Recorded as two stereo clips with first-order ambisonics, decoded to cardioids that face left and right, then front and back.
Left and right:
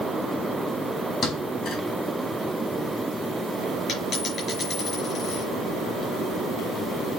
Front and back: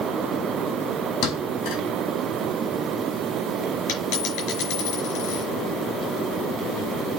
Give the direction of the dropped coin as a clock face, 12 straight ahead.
11 o'clock.